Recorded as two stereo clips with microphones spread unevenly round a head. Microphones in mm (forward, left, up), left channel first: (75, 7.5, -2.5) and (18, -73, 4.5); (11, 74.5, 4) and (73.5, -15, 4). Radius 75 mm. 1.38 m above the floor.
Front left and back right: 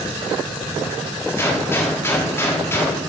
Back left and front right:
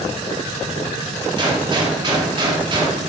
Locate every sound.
1.4 s a gunshot: 10° right, 4 m